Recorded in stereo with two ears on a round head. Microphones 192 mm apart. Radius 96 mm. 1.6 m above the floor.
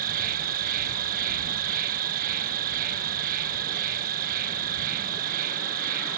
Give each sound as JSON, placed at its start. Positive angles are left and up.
{"t": 0.0, "sound": "an insect", "side_deg": -40}